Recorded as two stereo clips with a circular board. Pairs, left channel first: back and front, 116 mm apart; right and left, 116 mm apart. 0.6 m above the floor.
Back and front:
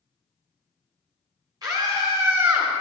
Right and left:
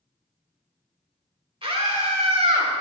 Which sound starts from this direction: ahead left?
A scream, at 1.6 s.